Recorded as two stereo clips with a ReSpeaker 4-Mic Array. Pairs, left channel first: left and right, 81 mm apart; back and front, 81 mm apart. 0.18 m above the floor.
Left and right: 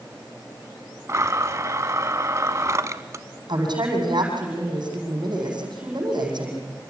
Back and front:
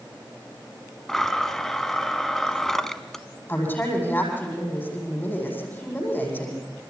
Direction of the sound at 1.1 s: 95° right.